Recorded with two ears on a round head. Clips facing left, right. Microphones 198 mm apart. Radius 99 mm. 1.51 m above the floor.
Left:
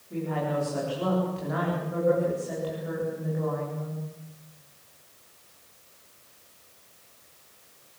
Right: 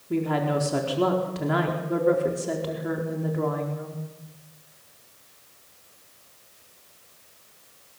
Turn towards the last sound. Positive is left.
turn(degrees=-85)